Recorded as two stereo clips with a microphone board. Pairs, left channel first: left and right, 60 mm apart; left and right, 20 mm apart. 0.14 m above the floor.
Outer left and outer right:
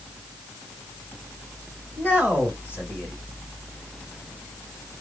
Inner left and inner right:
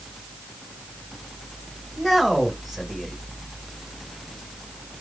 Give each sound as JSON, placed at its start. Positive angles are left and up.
{"t": 2.0, "sound": "a man speaking", "side_deg": -20, "distance_m": 1.6}